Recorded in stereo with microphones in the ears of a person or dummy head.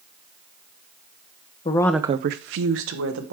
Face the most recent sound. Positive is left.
turn(degrees=-85)